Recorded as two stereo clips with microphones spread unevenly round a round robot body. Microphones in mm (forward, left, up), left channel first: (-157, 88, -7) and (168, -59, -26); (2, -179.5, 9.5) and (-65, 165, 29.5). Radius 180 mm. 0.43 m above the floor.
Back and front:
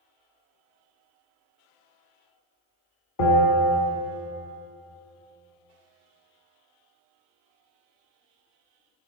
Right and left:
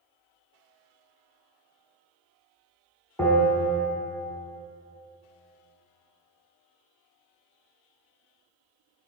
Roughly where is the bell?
Behind.